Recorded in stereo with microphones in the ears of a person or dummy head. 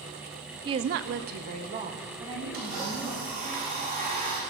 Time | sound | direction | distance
0.7 | a woman speaking | 20° right (ahead or behind) | 0.6 m
2.5 | a blender | 45° right (ahead or behind) | 4 m